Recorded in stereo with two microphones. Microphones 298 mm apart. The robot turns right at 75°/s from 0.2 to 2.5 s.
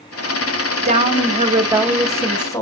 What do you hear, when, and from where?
0.8 s a woman speaking: 20° right (ahead or behind), 0.9 m; by 2.6 s 10° left (ahead or behind), 0.9 m